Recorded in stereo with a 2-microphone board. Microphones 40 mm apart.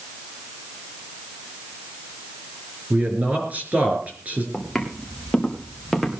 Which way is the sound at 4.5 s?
5° left (ahead or behind).